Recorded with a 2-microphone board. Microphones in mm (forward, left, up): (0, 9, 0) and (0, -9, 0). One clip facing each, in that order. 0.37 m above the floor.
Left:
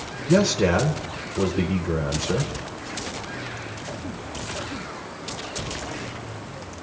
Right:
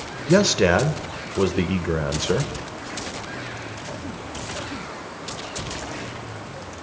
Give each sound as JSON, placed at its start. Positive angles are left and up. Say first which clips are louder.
{"t": 0.3, "sound": "a man speaking", "louder": "right 2 dB", "side_deg": -35, "distance_m": 1.1}